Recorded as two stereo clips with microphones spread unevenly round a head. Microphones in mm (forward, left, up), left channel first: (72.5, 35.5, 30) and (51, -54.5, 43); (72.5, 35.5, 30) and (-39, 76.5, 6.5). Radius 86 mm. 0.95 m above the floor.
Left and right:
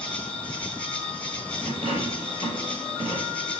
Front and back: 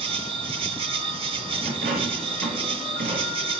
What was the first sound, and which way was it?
An insect, 150° left.